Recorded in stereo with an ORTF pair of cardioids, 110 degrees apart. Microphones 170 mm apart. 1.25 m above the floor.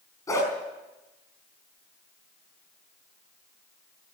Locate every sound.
0.3 s a dog barking: 20° left, 4.5 m